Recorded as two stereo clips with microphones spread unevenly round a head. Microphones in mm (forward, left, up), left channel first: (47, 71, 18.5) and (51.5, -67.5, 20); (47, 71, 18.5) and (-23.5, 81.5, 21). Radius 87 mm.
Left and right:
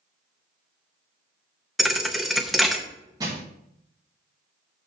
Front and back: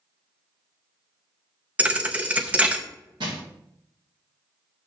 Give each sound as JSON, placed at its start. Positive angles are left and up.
{"t": 1.8, "sound": "a thud", "azimuth_deg": -175, "distance_m": 0.6}
{"t": 3.2, "sound": "crushing", "azimuth_deg": -155, "distance_m": 1.8}